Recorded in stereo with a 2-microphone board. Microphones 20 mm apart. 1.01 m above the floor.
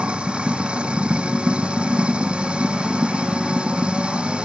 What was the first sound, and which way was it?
Running water, 60° right (ahead or behind).